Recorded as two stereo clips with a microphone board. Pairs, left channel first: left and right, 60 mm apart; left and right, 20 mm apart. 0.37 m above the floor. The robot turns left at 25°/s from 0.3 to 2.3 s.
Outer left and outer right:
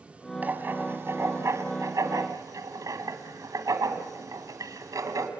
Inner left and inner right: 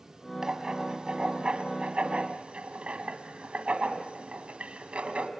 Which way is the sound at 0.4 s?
30° right (ahead or behind).